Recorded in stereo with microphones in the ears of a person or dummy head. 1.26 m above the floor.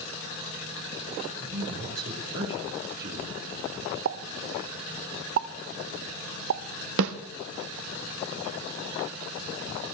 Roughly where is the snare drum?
Right.